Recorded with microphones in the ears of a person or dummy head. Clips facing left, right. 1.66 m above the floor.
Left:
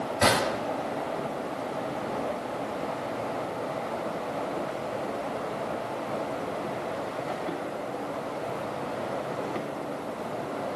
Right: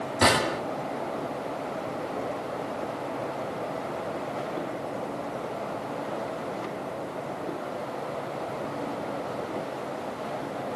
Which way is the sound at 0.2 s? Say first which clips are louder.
Right 1 dB; 45° right (ahead or behind).